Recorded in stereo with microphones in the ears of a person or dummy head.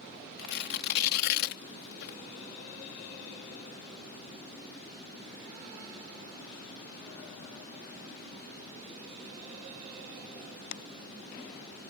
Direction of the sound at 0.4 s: 70° left (ahead or behind).